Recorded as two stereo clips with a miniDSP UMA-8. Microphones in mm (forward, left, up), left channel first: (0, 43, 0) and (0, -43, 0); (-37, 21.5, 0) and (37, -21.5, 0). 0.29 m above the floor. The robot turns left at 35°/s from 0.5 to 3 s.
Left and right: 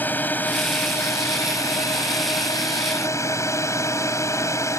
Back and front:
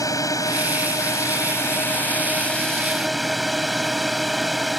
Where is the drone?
150° left; by 4.8 s 60° left.